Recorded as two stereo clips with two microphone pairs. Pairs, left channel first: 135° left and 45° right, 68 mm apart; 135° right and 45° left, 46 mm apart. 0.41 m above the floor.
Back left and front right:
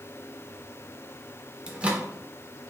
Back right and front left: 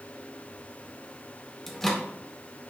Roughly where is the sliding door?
I don't hear a sliding door.